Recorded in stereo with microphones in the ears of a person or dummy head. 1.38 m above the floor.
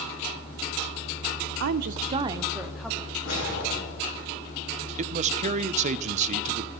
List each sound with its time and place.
1.6 s a woman speaking: 65° right (ahead or behind), 0.6 m; by 3.1 s 5° left (ahead or behind), 1.2 m
3.2 s a whoosh: 80° left, 4.5 m
5.0 s a man speaking: 40° right (ahead or behind), 0.6 m